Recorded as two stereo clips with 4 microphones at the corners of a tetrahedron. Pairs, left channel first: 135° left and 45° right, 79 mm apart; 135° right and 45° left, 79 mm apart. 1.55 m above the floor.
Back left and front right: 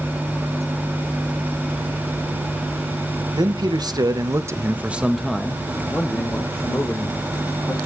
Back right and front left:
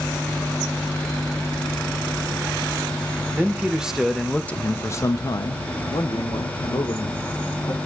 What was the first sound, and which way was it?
A man speaking, 25° right.